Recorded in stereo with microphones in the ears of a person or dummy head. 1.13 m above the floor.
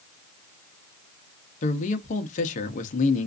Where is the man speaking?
40° left (ahead or behind), 0.6 m.